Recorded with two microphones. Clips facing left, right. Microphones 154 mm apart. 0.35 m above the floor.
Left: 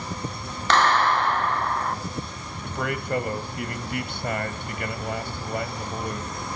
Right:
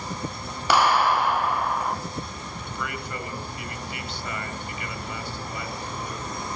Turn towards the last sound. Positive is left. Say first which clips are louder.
# left 7 dB
turn(degrees=55)  # may be behind; listen again after turning